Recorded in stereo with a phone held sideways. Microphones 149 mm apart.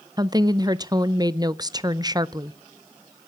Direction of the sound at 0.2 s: 25° right (ahead or behind).